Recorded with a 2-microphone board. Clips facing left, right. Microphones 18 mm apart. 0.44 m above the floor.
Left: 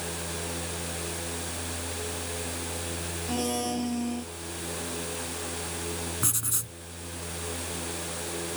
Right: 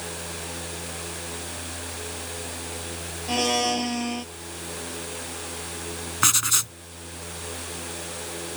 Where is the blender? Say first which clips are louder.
Right 7 dB; 40° right (ahead or behind).